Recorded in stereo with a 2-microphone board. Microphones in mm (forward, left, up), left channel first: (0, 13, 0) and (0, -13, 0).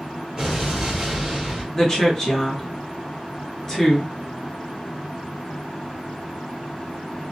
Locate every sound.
0.4 s an explosion: 15° right (ahead or behind), 1.4 m
1.7 s a woman speaking: 25° left (ahead or behind), 1.3 m